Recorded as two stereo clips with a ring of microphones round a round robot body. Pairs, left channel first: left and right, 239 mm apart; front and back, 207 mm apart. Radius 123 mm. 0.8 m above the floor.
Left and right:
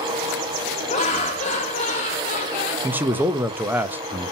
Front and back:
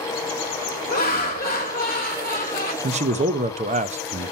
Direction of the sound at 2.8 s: 165° right.